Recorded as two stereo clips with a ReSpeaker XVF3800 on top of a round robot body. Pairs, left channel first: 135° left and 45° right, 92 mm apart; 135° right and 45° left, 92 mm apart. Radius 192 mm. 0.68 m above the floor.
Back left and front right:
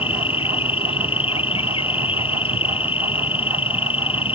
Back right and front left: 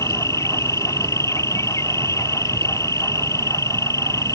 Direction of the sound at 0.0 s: 165° left.